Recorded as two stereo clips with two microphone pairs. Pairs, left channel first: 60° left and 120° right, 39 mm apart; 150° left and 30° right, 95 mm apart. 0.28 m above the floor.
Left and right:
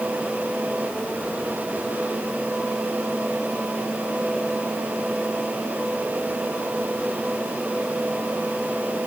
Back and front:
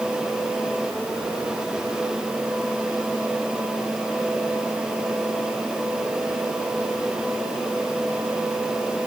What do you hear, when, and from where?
Only background noise.